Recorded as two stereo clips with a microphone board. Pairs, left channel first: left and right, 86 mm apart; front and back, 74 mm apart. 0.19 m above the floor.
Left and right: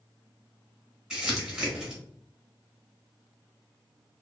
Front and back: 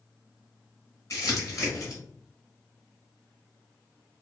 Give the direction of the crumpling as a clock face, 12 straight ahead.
12 o'clock.